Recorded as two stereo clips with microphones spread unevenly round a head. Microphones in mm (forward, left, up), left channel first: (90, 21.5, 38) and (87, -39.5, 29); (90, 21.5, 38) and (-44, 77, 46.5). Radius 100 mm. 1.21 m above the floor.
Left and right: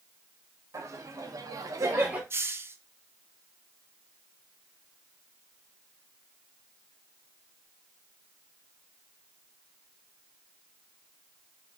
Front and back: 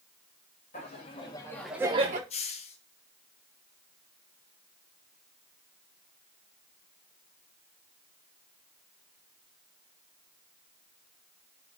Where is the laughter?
70° right, 2 m; by 2.2 s 165° right, 1.0 m.